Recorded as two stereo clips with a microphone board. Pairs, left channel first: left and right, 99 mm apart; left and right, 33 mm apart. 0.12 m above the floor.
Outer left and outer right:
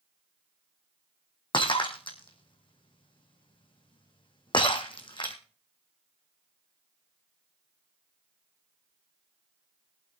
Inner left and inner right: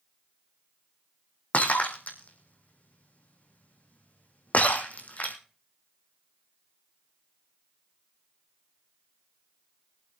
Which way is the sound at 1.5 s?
55° left (ahead or behind).